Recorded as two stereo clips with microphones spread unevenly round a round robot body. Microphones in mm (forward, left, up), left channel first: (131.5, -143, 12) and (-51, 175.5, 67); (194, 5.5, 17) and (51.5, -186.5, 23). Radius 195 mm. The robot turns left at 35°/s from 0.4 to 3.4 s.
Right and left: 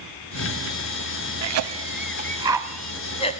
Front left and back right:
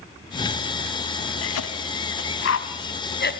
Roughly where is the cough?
Left.